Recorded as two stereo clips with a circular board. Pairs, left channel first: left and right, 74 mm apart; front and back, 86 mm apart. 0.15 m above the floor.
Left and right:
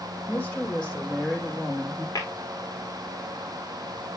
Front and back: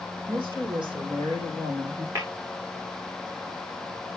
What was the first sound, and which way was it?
A woman speaking, 165° left.